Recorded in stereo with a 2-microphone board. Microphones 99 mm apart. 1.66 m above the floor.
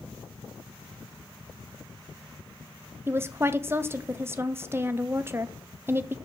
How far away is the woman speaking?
About 0.5 m.